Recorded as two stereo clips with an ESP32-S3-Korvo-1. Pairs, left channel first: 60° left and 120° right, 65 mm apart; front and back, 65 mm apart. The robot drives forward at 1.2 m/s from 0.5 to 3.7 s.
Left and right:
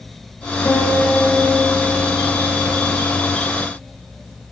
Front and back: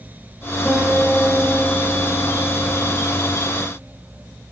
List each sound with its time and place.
0.7 s a guitar: 95° left, 4.5 m; by 3.0 s 125° left, 5.5 m